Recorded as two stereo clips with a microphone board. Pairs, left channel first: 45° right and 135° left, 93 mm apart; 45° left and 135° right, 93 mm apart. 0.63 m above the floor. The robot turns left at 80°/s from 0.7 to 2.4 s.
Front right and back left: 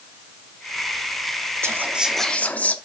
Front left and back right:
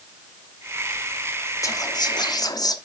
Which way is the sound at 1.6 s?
85° left.